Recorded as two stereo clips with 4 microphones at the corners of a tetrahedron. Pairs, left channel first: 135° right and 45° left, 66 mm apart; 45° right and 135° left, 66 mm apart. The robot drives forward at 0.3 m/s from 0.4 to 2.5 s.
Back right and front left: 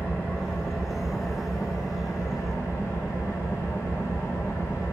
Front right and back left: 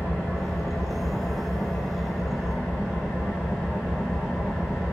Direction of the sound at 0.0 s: 85° right.